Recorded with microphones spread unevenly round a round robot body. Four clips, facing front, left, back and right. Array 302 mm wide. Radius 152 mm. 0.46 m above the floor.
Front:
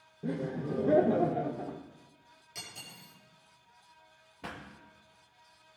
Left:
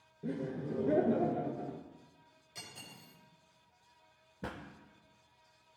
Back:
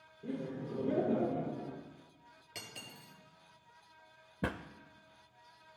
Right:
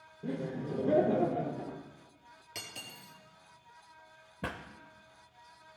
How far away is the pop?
About 0.6 m.